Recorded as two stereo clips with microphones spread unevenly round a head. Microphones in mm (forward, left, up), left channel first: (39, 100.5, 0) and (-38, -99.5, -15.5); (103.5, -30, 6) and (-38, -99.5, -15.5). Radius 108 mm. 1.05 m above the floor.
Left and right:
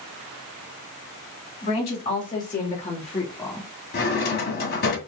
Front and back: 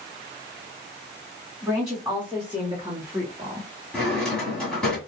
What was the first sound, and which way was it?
A woman speaking, 120° left.